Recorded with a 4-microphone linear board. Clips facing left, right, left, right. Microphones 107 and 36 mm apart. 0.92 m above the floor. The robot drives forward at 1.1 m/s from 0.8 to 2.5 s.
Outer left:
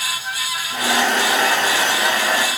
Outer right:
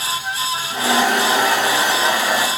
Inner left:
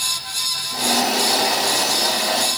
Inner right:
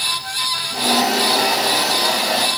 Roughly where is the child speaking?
No child speaking in this recording.